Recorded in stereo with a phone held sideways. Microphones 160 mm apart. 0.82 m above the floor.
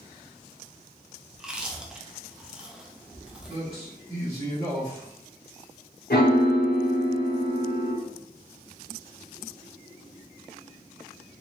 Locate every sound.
1.3 s chewing: 5° right (ahead or behind), 0.6 m
3.5 s a man speaking: 35° right (ahead or behind), 1.8 m
6.1 s a piano: 75° left (ahead or behind), 1.0 m